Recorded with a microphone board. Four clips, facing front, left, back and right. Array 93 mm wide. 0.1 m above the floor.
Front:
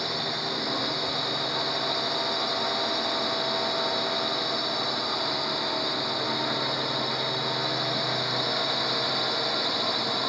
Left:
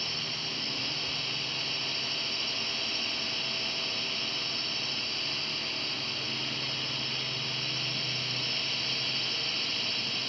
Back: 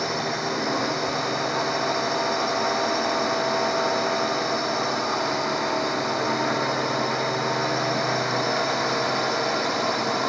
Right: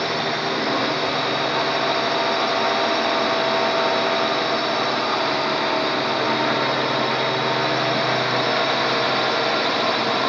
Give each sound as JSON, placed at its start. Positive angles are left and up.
{"t": 0.0, "sound": "a drone", "azimuth_deg": -110}